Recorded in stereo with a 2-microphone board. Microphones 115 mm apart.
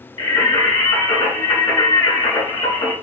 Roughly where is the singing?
Left.